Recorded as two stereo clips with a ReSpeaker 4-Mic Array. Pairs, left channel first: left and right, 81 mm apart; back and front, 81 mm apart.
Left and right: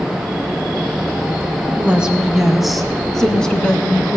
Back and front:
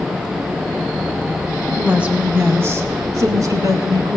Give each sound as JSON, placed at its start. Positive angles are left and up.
{"t": 1.7, "sound": "a woman speaking", "azimuth_deg": -65, "distance_m": 1.0}